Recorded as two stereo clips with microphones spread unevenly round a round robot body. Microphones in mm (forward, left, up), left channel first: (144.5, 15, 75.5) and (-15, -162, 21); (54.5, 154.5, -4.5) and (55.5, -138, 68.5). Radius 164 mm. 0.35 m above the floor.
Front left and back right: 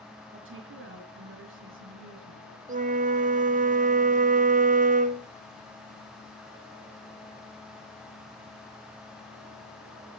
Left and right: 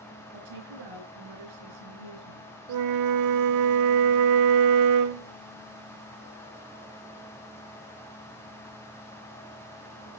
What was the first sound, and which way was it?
A woman speaking, 105° right.